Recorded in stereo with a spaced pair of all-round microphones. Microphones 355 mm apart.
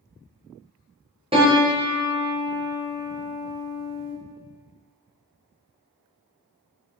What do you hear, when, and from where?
1.3 s a piano: 15° right (ahead or behind), 0.8 m